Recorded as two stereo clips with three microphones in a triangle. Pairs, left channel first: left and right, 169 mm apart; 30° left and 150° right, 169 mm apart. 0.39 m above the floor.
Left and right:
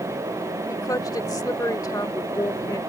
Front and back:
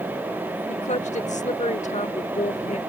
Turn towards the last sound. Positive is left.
turn(degrees=35)